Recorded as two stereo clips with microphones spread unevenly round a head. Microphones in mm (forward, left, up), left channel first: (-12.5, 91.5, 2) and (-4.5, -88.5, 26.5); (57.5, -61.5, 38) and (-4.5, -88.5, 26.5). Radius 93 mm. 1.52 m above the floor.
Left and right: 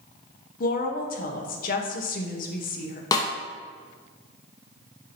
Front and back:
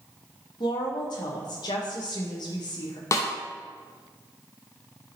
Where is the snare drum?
20° left, 0.5 m.